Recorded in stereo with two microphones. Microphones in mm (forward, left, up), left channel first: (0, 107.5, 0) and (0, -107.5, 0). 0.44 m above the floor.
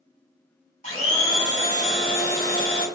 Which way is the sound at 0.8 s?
35° left (ahead or behind).